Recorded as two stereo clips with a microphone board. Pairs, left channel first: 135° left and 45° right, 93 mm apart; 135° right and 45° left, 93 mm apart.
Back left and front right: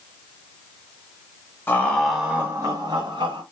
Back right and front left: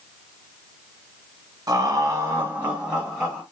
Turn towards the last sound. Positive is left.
turn(degrees=-45)